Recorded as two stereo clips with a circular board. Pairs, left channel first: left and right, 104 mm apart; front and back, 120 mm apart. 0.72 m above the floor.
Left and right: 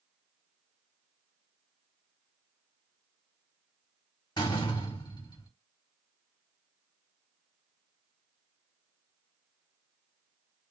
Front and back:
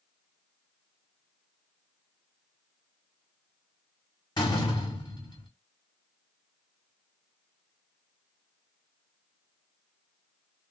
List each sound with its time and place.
4.4 s a door slam: 45° left, 1.6 m